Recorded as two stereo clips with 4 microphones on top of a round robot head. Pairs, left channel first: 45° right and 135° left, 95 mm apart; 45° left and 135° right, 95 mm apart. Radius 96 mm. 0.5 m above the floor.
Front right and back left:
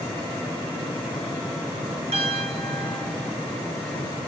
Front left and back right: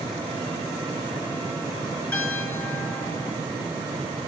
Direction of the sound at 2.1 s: 120° left.